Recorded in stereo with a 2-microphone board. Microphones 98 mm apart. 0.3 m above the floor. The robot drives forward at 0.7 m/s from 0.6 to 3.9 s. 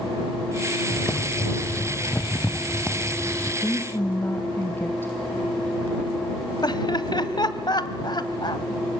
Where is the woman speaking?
25° left (ahead or behind), 1.1 m; by 5.1 s 20° left (ahead or behind), 1.3 m.